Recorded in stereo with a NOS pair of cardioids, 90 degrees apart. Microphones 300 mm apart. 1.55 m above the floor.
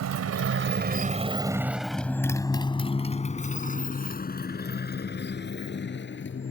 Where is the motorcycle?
65° right; by 6.5 s 40° left.